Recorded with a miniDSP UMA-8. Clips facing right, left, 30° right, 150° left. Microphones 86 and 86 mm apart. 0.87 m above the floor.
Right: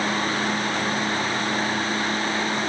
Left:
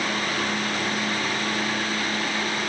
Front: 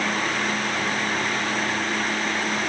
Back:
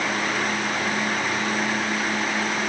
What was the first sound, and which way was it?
Only background noise.